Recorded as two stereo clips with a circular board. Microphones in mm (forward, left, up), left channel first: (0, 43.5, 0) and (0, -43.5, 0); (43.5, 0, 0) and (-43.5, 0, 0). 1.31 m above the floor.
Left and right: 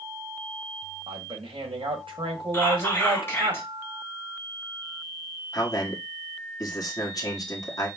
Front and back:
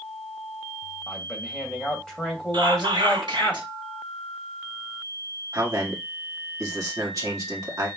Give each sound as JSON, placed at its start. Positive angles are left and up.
{"t": 1.1, "sound": "a man speaking", "azimuth_deg": -80, "distance_m": 1.7}
{"t": 2.5, "sound": "whispering", "azimuth_deg": 150, "distance_m": 1.8}
{"t": 5.5, "sound": "a man speaking", "azimuth_deg": 130, "distance_m": 1.4}